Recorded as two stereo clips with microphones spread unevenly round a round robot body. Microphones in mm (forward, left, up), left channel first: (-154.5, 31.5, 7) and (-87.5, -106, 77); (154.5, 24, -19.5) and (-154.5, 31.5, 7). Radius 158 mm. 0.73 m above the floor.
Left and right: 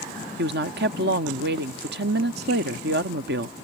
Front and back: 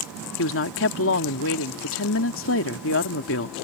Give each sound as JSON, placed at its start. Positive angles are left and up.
{"t": 0.4, "sound": "a woman speaking", "azimuth_deg": -40}